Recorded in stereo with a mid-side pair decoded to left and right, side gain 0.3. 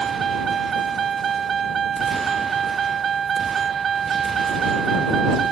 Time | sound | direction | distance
0.0 | a vehicle | 60° right | ?